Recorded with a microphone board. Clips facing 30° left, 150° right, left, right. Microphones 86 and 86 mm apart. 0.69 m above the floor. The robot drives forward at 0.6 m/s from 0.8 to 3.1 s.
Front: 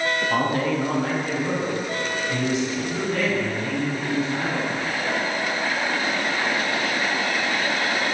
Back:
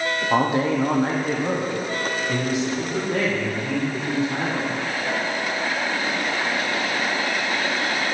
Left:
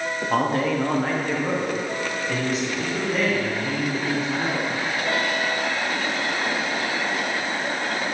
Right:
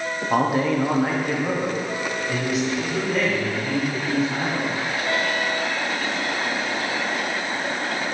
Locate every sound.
0.3 s a man speaking: 160° right, 0.7 m; by 4.8 s 175° right, 1.8 m